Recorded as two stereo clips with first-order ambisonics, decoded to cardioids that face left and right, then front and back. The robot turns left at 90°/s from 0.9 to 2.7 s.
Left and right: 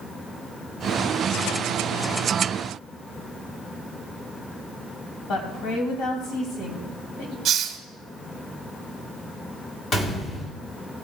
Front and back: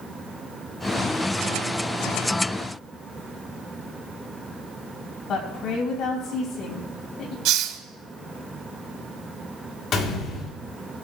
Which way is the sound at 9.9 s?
35° left.